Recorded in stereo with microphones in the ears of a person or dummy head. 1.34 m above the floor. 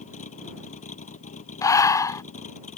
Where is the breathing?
15° left (ahead or behind).